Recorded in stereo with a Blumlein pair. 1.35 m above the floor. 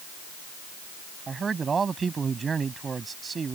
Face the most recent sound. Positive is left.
turn(degrees=-15)